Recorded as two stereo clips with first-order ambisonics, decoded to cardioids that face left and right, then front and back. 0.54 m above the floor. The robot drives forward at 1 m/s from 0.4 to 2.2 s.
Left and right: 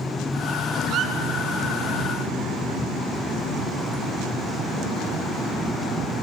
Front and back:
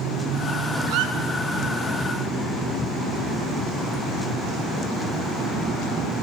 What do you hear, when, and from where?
0.9 s a squeak: 140° right, 4.5 m; by 1.1 s 145° right, 4.5 m